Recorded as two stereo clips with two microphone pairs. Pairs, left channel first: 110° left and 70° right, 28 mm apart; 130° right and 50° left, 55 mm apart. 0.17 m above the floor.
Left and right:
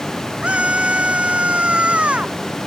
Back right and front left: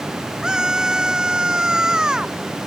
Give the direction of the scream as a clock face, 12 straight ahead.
1 o'clock.